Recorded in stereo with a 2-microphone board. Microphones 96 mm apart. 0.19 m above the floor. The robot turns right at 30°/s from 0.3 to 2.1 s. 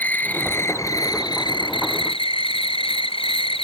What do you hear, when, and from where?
0.0 s an insect: 15° left; by 3.7 s 70° left